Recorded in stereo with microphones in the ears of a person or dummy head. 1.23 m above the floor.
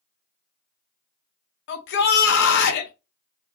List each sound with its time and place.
1.7 s a shout: 70° left (ahead or behind), 0.8 m